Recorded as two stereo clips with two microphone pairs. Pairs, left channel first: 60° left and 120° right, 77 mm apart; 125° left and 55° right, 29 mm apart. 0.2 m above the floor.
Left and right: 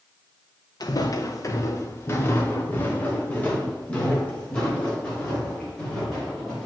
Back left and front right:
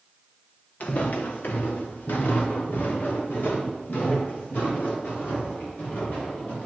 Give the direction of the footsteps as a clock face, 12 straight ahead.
9 o'clock.